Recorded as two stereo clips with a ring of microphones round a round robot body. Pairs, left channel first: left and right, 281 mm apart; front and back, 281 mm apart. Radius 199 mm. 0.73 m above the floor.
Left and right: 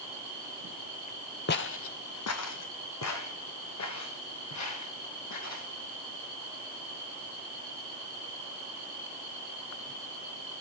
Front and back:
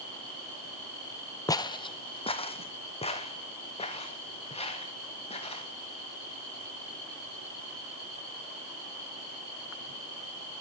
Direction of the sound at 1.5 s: 70° left.